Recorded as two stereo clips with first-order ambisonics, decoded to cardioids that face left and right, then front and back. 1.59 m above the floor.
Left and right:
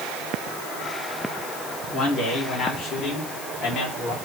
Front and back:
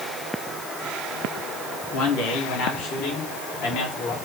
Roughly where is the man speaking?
Ahead.